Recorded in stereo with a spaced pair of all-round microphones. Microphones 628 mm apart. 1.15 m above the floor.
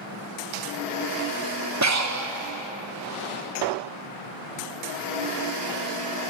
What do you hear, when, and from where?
1.8 s breathing: 30° right (ahead or behind), 0.7 m